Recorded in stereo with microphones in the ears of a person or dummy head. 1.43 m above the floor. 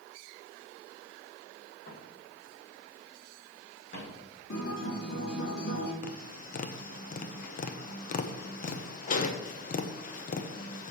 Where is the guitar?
75° left (ahead or behind), 2.5 m.